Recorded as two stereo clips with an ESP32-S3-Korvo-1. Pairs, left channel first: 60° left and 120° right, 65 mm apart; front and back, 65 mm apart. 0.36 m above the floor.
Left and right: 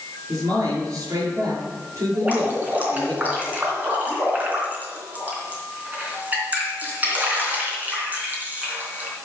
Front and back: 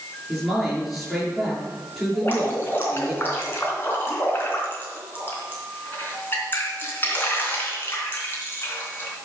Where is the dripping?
55° right, 3 m.